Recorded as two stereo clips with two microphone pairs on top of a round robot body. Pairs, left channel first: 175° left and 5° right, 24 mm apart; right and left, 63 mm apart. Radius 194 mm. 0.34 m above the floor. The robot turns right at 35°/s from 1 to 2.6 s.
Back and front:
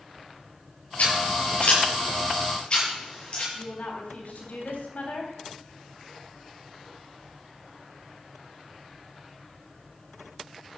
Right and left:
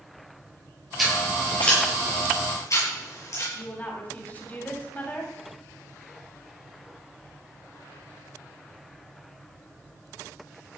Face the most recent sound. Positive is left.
turn(degrees=-155)